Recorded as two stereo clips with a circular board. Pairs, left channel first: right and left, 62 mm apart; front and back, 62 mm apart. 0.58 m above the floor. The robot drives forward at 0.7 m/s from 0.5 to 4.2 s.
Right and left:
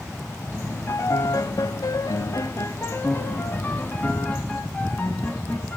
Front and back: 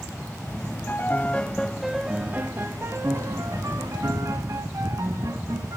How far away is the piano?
About 1.0 m.